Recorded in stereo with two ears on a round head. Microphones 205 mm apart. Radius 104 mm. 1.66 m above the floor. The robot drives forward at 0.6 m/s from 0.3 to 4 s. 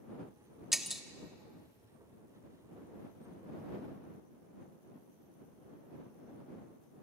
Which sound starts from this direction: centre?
Breaking glass, at 0.7 s.